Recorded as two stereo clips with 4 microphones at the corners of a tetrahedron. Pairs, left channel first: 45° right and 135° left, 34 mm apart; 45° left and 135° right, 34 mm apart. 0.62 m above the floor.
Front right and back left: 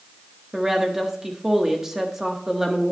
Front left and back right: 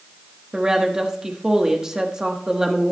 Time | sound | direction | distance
0.5 | a woman speaking | 170° right | 1.2 m